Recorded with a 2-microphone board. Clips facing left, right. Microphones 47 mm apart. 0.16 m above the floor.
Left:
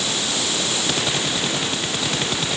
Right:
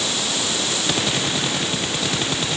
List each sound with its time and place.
Only background noise.